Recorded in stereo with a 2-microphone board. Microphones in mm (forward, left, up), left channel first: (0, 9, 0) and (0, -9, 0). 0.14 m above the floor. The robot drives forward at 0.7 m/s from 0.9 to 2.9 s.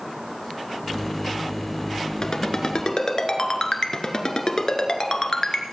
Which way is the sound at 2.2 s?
50° left (ahead or behind).